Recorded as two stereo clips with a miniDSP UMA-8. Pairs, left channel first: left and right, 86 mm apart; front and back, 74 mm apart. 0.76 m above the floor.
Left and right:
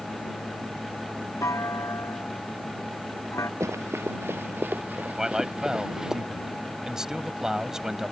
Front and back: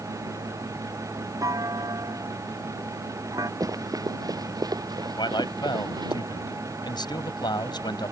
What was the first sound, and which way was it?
A clunk, 145° left.